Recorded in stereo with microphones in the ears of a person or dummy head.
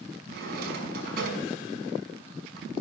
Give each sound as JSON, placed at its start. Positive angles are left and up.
{"t": 0.3, "sound": "a drawer", "side_deg": -65, "distance_m": 5.5}